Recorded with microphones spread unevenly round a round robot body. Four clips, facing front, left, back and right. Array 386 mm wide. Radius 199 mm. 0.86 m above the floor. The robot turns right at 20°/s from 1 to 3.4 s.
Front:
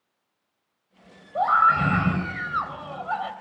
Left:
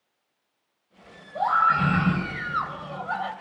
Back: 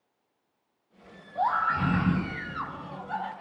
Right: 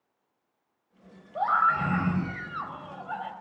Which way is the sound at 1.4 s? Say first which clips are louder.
Left 3 dB, front 7 dB; straight ahead.